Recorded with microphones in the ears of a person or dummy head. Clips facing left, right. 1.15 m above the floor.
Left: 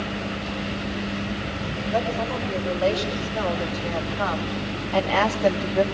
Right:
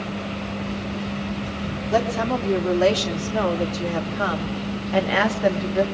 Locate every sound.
1.9 s a woman speaking: 75° right (ahead or behind), 3.5 m; by 5.8 s 5° right (ahead or behind), 2.5 m